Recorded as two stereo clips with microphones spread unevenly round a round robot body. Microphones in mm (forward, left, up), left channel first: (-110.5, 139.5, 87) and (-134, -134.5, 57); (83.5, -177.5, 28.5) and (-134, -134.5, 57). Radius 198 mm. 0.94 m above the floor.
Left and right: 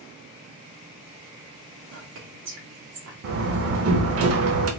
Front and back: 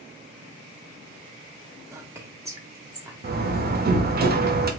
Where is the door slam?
140° right, 0.6 m.